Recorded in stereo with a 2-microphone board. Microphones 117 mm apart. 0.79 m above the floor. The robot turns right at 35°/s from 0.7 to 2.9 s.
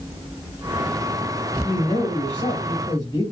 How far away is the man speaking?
About 2.5 m.